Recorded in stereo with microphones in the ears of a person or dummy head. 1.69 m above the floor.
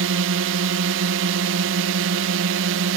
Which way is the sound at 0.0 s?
70° right (ahead or behind).